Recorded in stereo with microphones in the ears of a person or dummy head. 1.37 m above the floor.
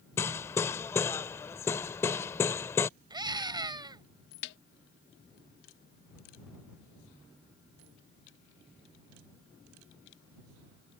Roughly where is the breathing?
I don't hear breathing.